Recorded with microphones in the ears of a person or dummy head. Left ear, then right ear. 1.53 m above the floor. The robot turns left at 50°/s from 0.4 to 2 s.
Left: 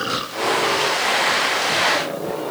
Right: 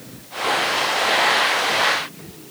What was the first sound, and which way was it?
Only background noise.